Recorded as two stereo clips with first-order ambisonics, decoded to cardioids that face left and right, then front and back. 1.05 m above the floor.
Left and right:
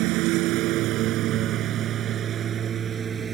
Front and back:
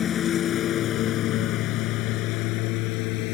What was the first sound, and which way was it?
A lawn mower, 60° right.